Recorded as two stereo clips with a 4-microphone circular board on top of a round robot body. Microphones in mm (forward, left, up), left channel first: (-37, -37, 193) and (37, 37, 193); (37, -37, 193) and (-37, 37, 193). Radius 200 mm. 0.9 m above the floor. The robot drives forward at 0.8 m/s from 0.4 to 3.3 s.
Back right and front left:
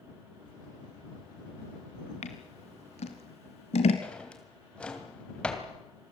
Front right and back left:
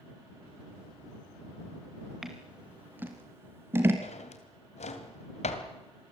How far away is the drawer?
About 2.5 m.